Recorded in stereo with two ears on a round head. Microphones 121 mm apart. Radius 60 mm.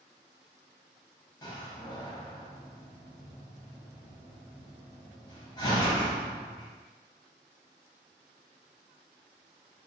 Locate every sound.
1.4 s a door slam: 35° left (ahead or behind), 0.8 m